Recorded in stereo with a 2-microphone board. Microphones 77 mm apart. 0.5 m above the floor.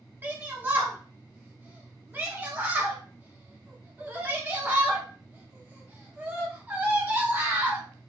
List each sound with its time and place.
0.2 s a shout: 25° right (ahead or behind), 0.8 m